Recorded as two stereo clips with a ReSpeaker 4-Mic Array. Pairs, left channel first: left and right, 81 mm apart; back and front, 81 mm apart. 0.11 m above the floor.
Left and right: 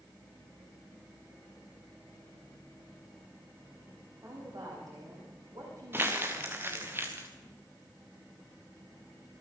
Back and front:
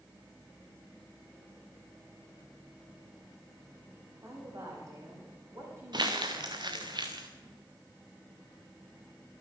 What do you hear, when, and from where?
4.2 s a woman speaking: 50° right, 8 m; by 6.9 s 55° right, 7 m
5.9 s crumpling: 25° right, 2.5 m